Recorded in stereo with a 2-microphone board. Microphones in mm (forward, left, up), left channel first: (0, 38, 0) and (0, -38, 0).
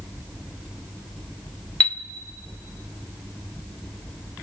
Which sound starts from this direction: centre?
A chime, at 1.8 s.